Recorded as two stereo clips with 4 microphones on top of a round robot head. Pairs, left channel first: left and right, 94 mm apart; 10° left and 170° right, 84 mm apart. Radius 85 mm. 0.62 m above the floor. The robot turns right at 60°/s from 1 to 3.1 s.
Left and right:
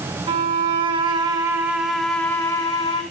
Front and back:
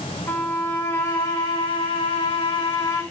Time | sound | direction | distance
0.3 | a violin | 60° right | 1.2 m